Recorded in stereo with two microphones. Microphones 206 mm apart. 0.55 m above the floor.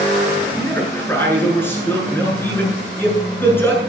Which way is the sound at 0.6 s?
10° left (ahead or behind).